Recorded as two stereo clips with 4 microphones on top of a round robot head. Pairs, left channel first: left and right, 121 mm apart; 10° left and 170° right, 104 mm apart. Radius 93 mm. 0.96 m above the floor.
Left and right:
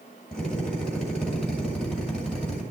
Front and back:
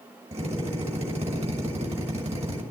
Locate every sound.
0.3 s a drill: 175° left, 6 m